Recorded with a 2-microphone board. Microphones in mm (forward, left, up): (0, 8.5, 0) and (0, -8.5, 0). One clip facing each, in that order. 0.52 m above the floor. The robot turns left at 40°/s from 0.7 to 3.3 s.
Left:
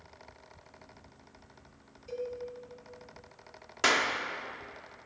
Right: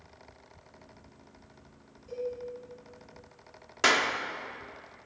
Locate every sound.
2.1 s a cowbell: 45° left (ahead or behind), 2.5 m; by 2.3 s 35° left (ahead or behind), 2.5 m
3.8 s a clap: 10° right (ahead or behind), 0.9 m